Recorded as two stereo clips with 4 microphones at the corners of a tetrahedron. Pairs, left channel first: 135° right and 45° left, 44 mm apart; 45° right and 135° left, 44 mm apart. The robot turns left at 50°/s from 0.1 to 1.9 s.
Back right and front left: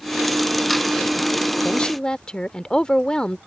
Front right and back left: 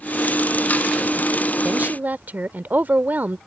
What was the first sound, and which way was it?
A woman speaking, 170° left.